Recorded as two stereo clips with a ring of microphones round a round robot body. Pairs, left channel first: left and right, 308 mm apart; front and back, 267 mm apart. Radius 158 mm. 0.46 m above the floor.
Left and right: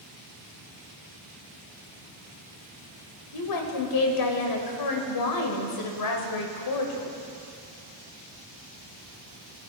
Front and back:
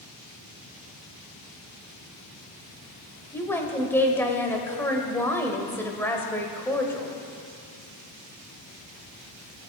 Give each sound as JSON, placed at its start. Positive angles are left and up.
{"t": 3.3, "sound": "a woman speaking", "azimuth_deg": 80, "distance_m": 1.8}